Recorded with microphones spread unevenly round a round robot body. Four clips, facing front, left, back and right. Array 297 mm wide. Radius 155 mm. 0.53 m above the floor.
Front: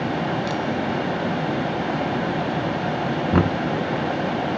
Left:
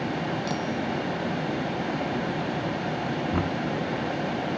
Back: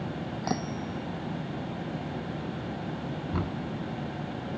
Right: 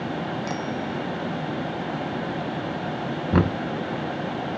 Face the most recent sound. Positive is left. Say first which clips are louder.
# right 10 dB, front 14 dB
turn(degrees=-35)